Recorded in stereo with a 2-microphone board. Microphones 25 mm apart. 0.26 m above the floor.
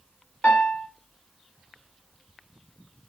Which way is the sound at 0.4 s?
45° left (ahead or behind).